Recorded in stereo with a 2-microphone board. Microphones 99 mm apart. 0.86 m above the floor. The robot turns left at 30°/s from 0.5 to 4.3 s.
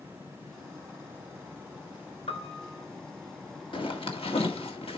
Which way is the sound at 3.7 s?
60° left (ahead or behind).